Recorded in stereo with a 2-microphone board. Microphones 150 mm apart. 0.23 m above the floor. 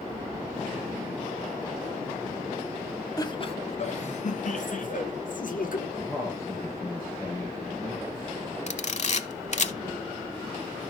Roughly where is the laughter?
Left.